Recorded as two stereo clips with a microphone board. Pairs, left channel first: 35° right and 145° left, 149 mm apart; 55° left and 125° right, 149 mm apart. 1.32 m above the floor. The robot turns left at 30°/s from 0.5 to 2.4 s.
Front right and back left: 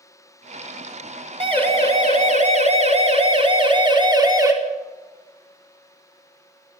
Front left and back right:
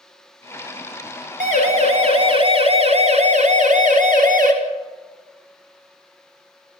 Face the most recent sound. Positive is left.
turn(degrees=-145)